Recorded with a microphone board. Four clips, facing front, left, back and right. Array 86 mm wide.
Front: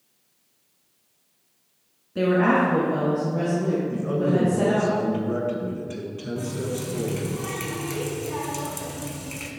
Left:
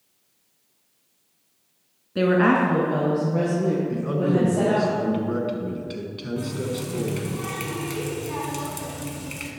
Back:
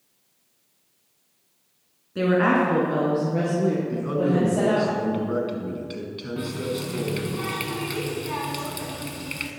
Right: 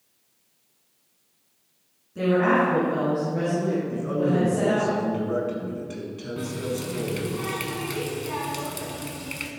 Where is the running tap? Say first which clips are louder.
Left 1 dB, back 2 dB; 165° right, 0.8 m.